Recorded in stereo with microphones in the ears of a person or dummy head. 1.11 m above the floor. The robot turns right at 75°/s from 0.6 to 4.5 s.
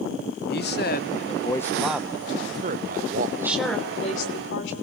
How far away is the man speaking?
About 0.7 m.